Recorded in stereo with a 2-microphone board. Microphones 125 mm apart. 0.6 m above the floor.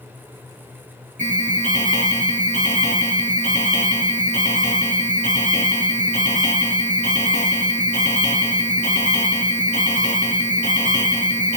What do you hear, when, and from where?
1.2 s an alarm: 65° right (ahead or behind), 4.5 m